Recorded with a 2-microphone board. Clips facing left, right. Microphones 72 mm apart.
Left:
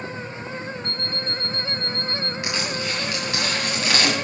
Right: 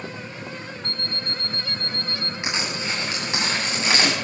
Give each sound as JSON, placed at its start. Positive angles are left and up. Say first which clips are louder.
{"t": 0.8, "sound": "an alarm clock", "louder": "left 2 dB", "side_deg": 20, "distance_m": 0.8}
{"t": 2.4, "sound": "crushing", "louder": "right 1 dB", "side_deg": -20, "distance_m": 8.5}